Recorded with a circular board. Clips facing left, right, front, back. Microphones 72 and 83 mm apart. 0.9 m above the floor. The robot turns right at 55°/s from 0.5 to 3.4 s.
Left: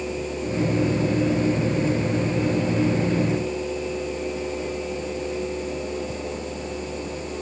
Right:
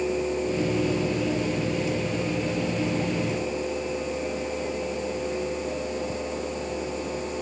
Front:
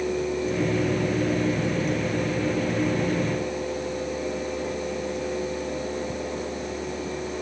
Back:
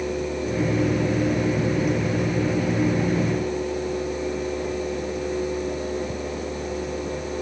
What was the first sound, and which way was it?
Only background noise.